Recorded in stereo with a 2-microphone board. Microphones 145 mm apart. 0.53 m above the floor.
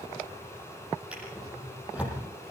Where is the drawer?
10° right (ahead or behind), 8 m.